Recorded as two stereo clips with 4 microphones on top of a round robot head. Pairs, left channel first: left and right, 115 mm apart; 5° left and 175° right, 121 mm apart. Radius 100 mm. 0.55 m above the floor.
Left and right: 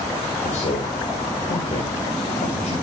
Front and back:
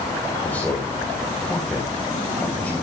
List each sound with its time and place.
0.4 s a man speaking: 80° left, 3 m